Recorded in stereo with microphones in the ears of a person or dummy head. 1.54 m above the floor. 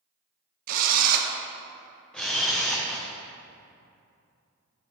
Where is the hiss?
No hiss in this recording.